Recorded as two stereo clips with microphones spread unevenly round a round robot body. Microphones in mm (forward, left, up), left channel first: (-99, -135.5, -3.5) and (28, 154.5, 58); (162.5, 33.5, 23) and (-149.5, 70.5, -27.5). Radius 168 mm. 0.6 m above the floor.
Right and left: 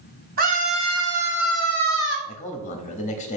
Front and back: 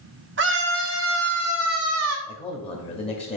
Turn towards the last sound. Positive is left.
turn(degrees=-80)